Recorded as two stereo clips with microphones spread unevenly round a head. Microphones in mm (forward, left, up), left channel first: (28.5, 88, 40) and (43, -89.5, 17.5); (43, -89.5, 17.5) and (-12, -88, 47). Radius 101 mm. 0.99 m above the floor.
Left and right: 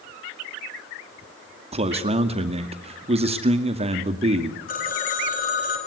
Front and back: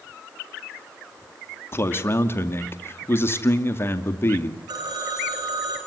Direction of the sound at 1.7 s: 30° right.